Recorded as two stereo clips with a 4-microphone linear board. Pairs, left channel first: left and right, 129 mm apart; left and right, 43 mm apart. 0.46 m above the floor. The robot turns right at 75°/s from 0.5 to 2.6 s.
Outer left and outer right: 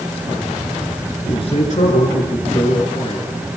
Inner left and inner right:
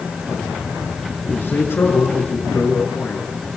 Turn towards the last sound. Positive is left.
turn(degrees=130)